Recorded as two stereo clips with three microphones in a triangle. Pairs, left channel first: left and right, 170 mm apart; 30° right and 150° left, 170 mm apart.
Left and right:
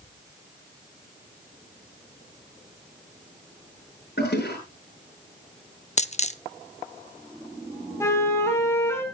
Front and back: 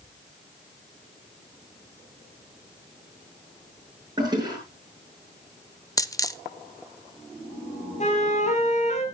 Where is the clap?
No clap in this recording.